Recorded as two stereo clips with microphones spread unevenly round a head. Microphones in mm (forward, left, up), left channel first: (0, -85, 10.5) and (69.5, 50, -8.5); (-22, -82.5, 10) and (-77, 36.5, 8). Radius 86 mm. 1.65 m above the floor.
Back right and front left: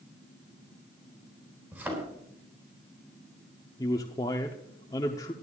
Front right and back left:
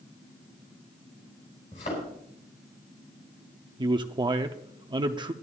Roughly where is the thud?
Ahead.